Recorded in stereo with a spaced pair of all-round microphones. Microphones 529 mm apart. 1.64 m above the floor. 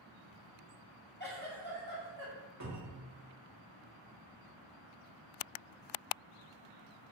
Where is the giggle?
20° left (ahead or behind), 0.7 m.